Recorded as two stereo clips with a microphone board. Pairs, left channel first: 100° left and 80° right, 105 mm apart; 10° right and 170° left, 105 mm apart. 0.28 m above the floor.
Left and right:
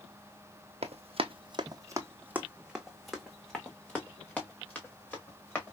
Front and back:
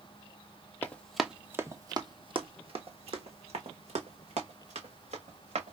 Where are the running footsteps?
85° right, 0.7 m; by 5.7 s 170° left, 2.5 m.